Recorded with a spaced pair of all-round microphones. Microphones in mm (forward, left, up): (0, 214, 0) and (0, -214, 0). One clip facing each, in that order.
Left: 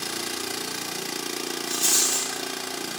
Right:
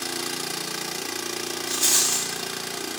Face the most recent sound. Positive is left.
turn(degrees=-90)